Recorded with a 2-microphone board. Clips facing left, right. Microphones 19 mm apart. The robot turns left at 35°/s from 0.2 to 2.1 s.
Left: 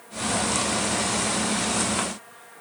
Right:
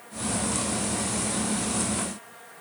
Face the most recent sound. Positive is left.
No sound to turn to.